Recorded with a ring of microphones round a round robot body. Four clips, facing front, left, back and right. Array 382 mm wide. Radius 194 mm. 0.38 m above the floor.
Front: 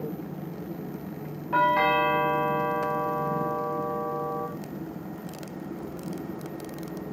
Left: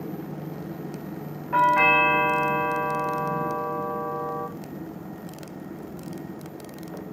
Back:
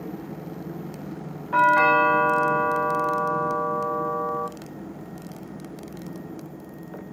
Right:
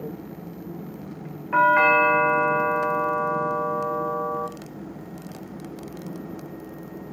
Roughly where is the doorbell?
Behind right.